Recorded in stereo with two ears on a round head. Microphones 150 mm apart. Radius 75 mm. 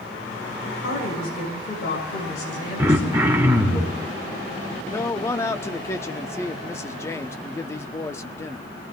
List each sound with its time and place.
0.7 s a woman speaking: 75° left (ahead or behind), 6 m
2.8 s throat clearing: 15° right (ahead or behind), 1.7 m
4.9 s a man speaking: 15° left (ahead or behind), 0.6 m